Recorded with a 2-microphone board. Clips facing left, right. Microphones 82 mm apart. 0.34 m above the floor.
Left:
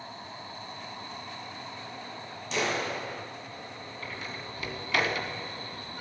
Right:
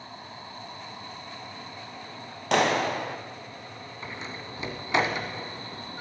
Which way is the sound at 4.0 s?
20° right (ahead or behind).